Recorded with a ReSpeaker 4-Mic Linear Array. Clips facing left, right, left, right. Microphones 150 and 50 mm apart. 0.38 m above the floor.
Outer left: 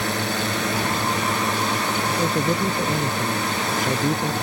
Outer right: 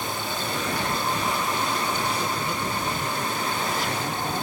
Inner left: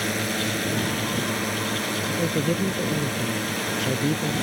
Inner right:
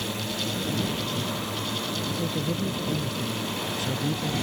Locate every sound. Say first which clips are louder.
0.0 s a drone: outer left 5 dB, inner left 5 dB; 75° left (ahead or behind)
2.1 s a man speaking: outer left 6 dB, inner left 6 dB; 50° left (ahead or behind)